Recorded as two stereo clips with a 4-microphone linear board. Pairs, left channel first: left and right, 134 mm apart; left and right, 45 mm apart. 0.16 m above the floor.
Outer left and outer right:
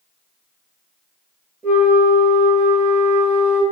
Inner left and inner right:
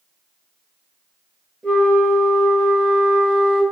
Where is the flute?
15° left (ahead or behind), 1.1 m.